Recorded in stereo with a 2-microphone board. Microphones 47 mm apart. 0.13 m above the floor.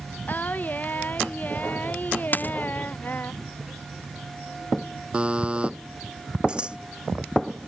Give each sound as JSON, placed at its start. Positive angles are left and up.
{"t": 0.3, "sound": "singing", "side_deg": 40}
{"t": 2.3, "sound": "a dropped coin", "side_deg": 40}
{"t": 5.1, "sound": "a buzzer", "side_deg": -25}
{"t": 6.5, "sound": "scissors", "side_deg": -20}